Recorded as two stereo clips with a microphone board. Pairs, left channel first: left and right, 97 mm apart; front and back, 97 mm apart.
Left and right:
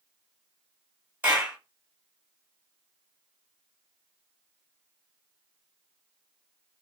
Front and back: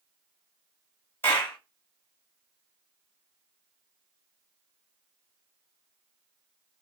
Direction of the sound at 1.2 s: 40° right.